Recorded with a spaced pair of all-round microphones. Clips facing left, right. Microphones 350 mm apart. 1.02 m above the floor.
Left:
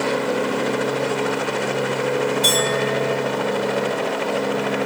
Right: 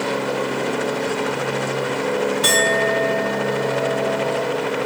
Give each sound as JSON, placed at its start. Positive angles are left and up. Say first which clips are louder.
{"t": 2.4, "sound": "a clink", "louder": "right 1 dB", "side_deg": -75, "distance_m": 1.5}